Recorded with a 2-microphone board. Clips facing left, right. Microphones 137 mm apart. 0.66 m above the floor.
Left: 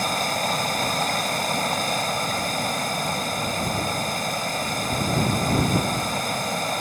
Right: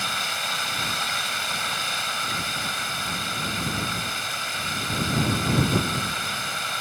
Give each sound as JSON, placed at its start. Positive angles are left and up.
{"t": 0.0, "sound": "running water", "side_deg": 45}